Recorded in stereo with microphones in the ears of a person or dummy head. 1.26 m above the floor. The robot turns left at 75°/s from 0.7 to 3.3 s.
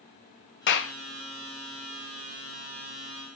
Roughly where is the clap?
Left.